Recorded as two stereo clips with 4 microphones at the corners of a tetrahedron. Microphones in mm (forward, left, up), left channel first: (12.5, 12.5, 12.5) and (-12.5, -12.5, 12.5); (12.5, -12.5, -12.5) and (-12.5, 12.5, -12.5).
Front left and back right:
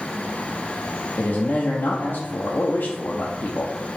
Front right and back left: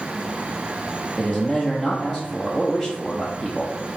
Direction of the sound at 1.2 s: 50° left.